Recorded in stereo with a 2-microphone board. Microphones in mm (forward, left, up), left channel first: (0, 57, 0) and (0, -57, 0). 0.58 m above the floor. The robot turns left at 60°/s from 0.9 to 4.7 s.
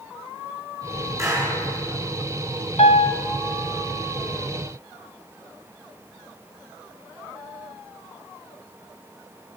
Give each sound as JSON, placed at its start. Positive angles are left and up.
{"t": 1.2, "sound": "a clap", "side_deg": -25, "distance_m": 7.0}
{"t": 2.8, "sound": "a piano", "side_deg": 65, "distance_m": 1.8}